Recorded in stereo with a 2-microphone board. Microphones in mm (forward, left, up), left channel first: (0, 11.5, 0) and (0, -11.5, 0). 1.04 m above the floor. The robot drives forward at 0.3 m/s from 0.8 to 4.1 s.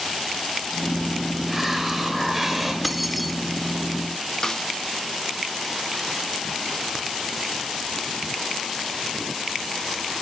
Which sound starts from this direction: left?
A snare drum, at 4.4 s.